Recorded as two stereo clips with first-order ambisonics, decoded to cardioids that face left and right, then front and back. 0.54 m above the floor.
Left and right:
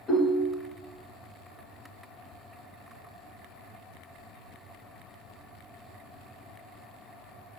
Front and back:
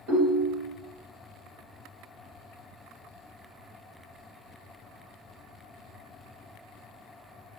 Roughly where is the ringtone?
Behind.